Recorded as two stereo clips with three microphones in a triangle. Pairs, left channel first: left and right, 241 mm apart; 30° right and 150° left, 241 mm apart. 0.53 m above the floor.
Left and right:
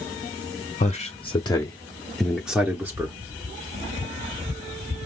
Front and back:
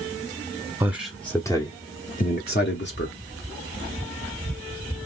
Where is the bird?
I don't hear a bird.